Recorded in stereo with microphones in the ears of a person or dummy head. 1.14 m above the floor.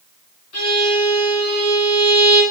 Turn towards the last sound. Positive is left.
turn(degrees=50)  # may be behind; listen again after turning